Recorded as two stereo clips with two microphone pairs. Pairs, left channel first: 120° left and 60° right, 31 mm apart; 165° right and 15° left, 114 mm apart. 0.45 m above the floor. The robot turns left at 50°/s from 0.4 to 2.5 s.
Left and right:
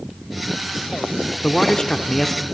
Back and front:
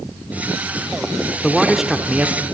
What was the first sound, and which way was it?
A man speaking, 120° left.